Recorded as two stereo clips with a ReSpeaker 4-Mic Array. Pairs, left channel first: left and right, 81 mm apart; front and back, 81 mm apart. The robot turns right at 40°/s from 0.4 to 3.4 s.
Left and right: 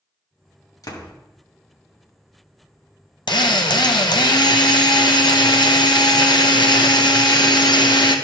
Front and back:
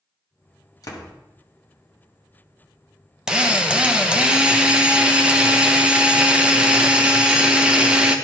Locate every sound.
0.8 s a door slam: 45° left, 1.2 m; by 1.1 s 60° left, 1.2 m
3.3 s a drill: 100° left, 0.9 m; by 8.2 s 105° left, 0.9 m